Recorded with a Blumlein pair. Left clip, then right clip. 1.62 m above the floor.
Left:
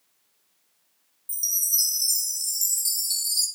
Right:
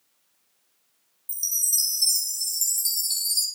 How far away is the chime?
About 1.0 m.